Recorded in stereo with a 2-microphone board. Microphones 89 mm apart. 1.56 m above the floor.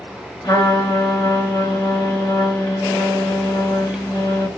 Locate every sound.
0.4 s a trumpet: 55° left (ahead or behind), 2 m